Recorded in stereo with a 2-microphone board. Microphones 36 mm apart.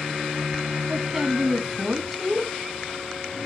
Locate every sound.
0.9 s a woman speaking: 10° right (ahead or behind), 1.6 m